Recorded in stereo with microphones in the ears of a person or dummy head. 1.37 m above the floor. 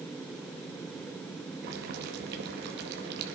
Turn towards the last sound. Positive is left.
turn(degrees=-60)  # may be behind; listen again after turning